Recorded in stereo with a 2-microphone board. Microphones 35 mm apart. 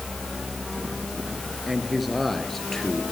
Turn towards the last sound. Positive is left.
turn(degrees=15)  # may be behind; listen again after turning